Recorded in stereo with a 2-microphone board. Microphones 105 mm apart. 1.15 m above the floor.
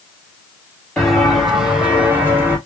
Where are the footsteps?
5° left (ahead or behind), 1.6 m; by 2.6 s 20° right (ahead or behind), 1.4 m.